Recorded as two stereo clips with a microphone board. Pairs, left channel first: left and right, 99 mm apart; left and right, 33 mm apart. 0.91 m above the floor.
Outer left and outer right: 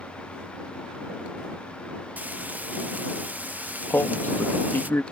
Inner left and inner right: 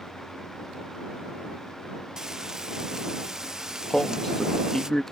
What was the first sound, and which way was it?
Frying, 15° right (ahead or behind).